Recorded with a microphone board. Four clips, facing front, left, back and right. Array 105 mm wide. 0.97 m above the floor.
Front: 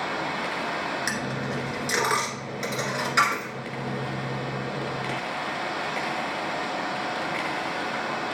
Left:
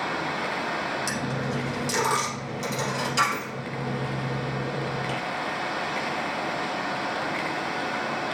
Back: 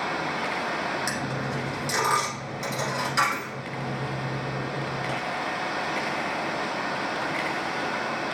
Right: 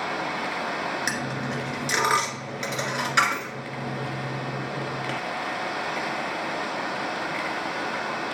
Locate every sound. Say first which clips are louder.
1.1 s a dropped coin: left 1 dB, even; 70° right, 1.6 m